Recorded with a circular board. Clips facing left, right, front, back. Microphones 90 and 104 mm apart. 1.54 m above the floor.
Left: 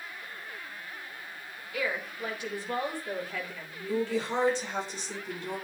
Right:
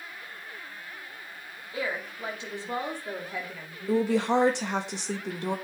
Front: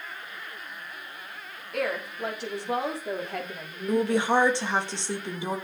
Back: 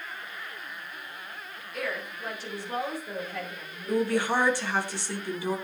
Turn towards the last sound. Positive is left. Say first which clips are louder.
# right 6 dB, front 2 dB
turn(degrees=-70)